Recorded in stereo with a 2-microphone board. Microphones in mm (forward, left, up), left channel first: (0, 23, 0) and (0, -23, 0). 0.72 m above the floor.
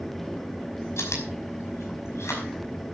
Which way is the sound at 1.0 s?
80° left.